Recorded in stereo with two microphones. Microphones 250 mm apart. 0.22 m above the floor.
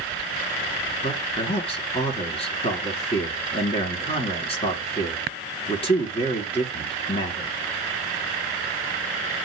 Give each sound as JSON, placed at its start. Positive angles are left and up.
{"t": 1.0, "sound": "a man speaking", "side_deg": 20, "distance_m": 2.0}